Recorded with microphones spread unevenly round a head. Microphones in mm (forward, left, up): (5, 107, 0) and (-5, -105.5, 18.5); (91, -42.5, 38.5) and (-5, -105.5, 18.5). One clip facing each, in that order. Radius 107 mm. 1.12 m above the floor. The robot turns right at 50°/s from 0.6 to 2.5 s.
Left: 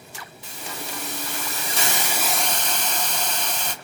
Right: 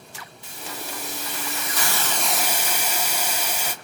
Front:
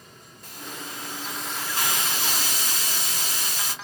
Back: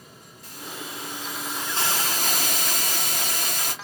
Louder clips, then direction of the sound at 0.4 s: Even, back 1 dB; 90° left.